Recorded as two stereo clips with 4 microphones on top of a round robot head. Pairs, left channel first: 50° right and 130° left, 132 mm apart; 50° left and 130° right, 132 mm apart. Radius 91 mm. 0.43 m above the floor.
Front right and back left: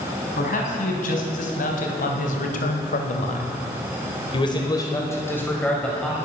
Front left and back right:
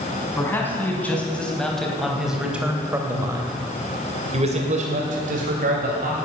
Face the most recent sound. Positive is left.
turn(degrees=-135)